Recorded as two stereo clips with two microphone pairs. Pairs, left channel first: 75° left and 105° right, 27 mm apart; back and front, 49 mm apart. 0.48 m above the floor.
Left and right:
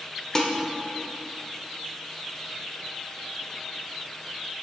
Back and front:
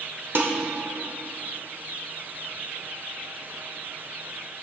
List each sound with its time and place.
0.3 s dishes clattering: 10° left, 0.9 m